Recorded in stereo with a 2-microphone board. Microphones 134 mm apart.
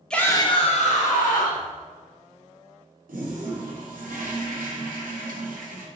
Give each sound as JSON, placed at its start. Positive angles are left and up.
{"t": 0.1, "sound": "a shout", "side_deg": 5, "distance_m": 0.8}
{"t": 3.1, "sound": "a toilet flushing", "side_deg": -85, "distance_m": 0.8}